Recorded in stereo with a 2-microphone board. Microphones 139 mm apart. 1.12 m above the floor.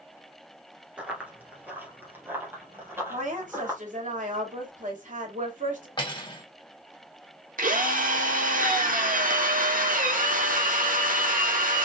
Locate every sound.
1.0 s running footsteps: 10° right (ahead or behind), 1.3 m; by 3.8 s 15° right (ahead or behind), 2.5 m
3.1 s a woman speaking: 65° right (ahead or behind), 2.5 m
6.0 s cutlery clinking: 35° left (ahead or behind), 2 m
7.6 s a drill: 80° right, 1.2 m